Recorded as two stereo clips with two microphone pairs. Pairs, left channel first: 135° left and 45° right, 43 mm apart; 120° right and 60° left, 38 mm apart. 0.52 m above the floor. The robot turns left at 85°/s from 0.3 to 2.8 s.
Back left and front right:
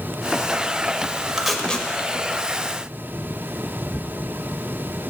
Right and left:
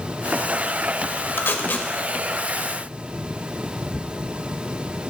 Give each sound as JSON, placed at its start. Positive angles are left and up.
{"t": 1.4, "sound": "tape being pulled", "azimuth_deg": -125, "distance_m": 1.1}